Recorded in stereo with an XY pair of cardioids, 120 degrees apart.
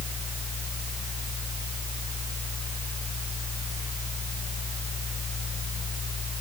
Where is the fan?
35° left.